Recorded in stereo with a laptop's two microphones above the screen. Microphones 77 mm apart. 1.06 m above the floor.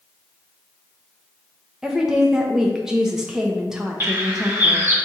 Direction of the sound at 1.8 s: 10° right (ahead or behind).